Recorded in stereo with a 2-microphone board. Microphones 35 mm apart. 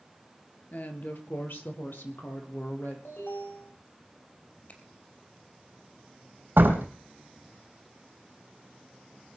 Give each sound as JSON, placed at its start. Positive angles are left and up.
{"t": 0.7, "sound": "a woman speaking", "side_deg": 55, "distance_m": 2.5}
{"t": 3.0, "sound": "an alarm", "side_deg": 75, "distance_m": 7.5}
{"t": 4.7, "sound": "a finger snap", "side_deg": 50, "distance_m": 4.0}
{"t": 6.6, "sound": "a door slam", "side_deg": -75, "distance_m": 3.5}